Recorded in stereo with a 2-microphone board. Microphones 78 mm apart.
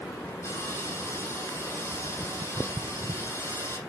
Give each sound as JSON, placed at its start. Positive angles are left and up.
{"t": 0.4, "sound": "sawing", "side_deg": 35, "distance_m": 4.5}